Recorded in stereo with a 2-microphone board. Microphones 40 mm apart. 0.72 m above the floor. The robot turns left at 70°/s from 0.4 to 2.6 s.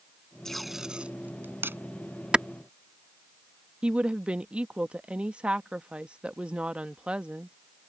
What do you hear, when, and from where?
0.5 s tape being pulled: 10° left (ahead or behind); by 1.8 s 80° right
2.3 s a clap: 25° right (ahead or behind); by 2.5 s 20° right (ahead or behind)
3.8 s a woman speaking: 30° right (ahead or behind)